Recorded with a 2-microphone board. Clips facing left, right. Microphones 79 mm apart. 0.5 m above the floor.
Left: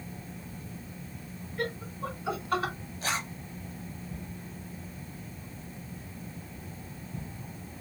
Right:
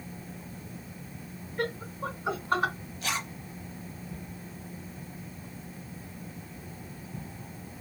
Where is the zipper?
35° left (ahead or behind), 1.2 m.